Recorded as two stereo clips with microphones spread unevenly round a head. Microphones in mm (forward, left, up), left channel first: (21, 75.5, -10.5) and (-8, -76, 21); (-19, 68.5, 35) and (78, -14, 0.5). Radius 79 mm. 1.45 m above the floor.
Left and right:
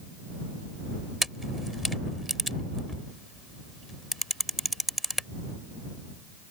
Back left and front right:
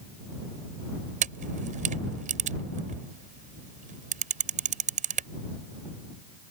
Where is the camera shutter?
10° right.